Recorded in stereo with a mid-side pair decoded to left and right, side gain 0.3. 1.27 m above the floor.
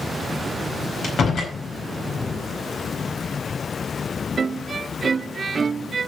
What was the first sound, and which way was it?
A door slam, 65° left.